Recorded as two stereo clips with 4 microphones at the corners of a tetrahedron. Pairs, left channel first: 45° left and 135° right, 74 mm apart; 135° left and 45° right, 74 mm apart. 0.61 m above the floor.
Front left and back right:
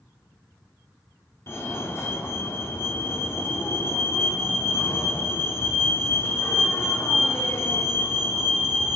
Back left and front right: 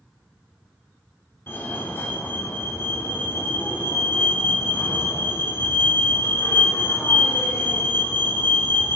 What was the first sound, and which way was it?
A fire alarm, 85° left.